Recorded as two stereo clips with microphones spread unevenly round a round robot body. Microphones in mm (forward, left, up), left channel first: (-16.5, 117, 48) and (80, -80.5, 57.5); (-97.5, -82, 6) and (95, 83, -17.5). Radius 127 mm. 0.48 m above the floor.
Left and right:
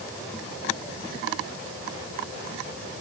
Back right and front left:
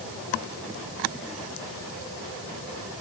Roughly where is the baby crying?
No baby crying in this recording.